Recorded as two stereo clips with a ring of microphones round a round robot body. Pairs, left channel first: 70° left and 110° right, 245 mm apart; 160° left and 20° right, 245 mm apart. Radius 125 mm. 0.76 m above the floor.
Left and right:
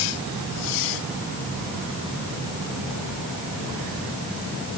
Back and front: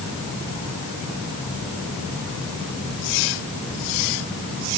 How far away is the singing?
I don't hear singing.